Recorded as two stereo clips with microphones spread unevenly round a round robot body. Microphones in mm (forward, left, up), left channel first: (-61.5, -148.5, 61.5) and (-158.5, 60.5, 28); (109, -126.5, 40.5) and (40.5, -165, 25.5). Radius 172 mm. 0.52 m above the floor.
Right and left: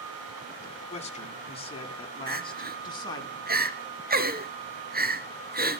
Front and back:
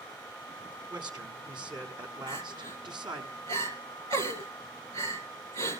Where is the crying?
165° left, 2.5 m.